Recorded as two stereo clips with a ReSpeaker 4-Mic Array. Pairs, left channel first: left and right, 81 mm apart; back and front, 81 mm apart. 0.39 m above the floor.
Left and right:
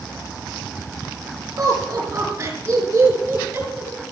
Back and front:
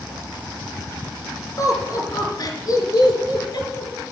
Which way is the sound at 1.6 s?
140° right.